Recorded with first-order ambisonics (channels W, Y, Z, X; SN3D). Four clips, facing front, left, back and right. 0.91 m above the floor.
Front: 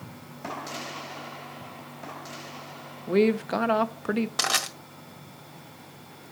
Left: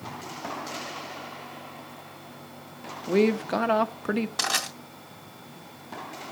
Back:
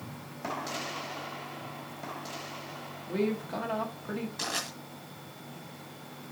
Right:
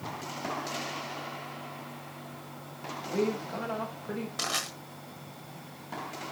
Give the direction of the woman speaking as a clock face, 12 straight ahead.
10 o'clock.